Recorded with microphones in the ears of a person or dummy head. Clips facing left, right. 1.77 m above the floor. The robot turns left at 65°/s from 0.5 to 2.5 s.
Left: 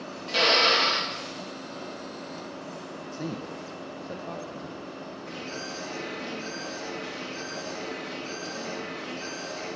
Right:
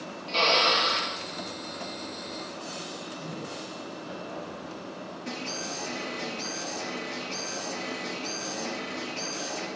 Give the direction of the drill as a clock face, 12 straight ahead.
7 o'clock.